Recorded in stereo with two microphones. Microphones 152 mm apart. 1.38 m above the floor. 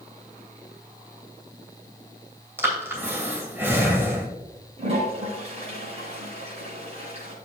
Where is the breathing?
15° right (ahead or behind), 2.5 m.